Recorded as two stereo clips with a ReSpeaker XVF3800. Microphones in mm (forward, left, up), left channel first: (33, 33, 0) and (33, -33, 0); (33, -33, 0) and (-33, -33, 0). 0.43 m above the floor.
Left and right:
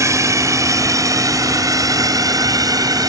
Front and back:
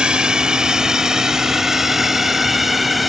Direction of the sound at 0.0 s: 105° right.